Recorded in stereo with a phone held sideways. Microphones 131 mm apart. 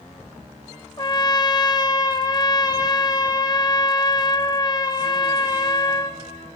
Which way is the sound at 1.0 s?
30° left (ahead or behind).